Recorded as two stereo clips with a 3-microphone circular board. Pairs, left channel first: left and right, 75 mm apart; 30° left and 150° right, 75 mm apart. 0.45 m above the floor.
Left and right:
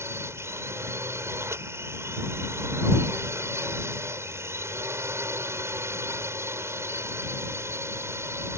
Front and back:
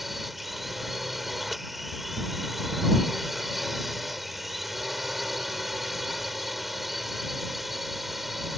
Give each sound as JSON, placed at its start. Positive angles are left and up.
{"t": 0.0, "sound": "a drone", "azimuth_deg": -65}